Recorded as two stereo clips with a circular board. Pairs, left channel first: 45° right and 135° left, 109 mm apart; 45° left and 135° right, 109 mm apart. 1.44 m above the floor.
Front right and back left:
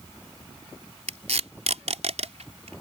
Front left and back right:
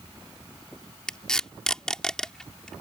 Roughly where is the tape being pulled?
Behind left.